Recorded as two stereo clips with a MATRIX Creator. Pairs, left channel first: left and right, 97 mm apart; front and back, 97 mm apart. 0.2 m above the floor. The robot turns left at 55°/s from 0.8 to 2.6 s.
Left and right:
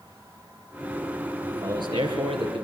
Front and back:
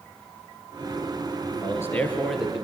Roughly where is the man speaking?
Ahead right.